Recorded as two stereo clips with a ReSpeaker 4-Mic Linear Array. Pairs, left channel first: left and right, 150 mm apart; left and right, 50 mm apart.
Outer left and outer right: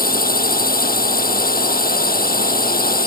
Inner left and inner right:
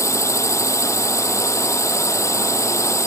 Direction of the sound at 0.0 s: 80° left.